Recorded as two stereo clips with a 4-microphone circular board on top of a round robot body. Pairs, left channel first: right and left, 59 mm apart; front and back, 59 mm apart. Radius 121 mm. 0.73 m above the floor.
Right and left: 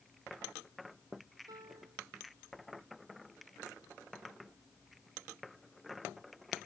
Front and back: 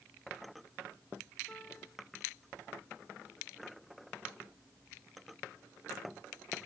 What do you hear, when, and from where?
1.5 s a piano: 75° left